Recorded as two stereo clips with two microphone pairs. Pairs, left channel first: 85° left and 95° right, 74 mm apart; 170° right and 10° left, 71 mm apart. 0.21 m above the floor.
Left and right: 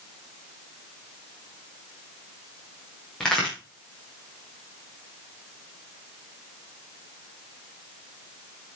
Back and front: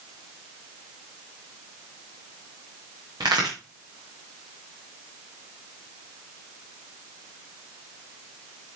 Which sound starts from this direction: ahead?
A crack, at 3.2 s.